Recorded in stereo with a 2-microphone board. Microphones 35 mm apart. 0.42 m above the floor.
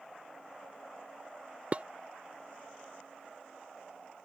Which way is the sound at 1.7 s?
40° right (ahead or behind).